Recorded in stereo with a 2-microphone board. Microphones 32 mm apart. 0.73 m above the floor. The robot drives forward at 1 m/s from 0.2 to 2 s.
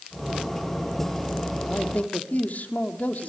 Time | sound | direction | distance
1.7 | a man speaking | 60° left (ahead or behind) | 1.8 m